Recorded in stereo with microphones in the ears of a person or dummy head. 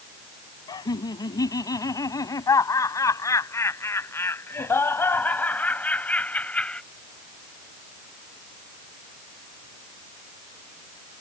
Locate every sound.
0.7 s laughter: 25° left (ahead or behind); by 6.8 s 5° left (ahead or behind)